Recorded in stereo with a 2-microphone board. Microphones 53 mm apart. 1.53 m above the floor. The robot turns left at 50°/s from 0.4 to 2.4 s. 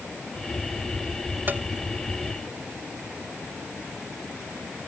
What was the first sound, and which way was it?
Tapping, 35° right (ahead or behind).